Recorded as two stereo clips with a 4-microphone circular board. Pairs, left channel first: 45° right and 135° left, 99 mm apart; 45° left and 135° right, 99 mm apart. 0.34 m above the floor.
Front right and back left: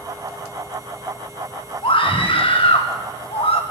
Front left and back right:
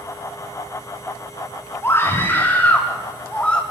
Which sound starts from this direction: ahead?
A scream, at 1.8 s.